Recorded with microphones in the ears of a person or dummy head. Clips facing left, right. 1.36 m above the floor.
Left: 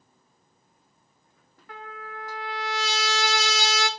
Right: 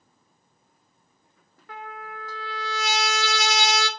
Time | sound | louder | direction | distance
1.7 | a trumpet | right 2 dB | 70° right (ahead or behind) | 0.6 m